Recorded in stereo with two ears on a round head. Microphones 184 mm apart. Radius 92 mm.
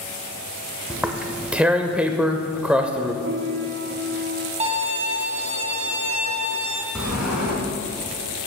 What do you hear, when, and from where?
0.9 s tearing paper: 5° right (ahead or behind), 0.7 m
3.2 s a piano: 80° right, 1.7 m
4.6 s a violin: 30° right (ahead or behind), 1.0 m
7.0 s a sliding door: 5° right (ahead or behind), 3 m